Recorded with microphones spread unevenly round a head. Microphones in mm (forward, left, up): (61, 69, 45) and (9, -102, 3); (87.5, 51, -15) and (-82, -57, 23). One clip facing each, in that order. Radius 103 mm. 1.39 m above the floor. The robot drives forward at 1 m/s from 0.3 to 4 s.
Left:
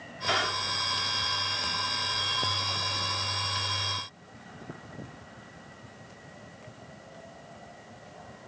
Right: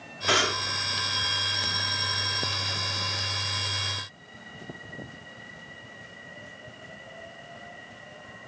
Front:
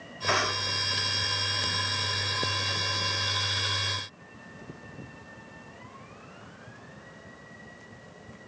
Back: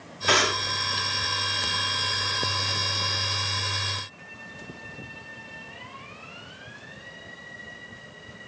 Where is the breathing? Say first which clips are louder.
Right 5 dB, back 5 dB; 155° right; by 0.7 s 160° right.